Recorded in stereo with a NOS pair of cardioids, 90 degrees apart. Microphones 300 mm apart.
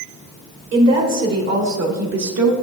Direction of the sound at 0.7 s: 65° right.